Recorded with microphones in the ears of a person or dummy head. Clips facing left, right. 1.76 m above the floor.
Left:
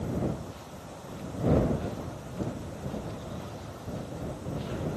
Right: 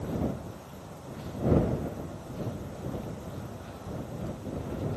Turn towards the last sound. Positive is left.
No sound to turn to.